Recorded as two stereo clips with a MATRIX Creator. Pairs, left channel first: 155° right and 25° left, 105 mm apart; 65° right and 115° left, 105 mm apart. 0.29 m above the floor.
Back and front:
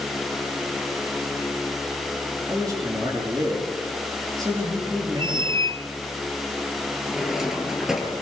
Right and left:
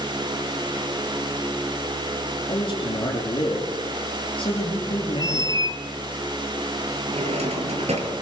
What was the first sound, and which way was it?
A man speaking, 30° right.